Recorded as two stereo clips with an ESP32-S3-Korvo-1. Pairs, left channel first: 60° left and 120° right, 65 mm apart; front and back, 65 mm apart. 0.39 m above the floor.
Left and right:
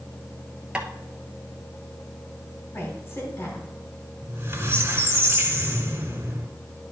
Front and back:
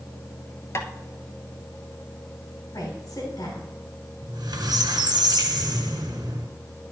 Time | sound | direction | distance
0.8 | tapping | 45° right | 1.0 m
2.7 | a woman speaking | 10° left | 3 m
4.2 | a squeak | 175° right | 1.7 m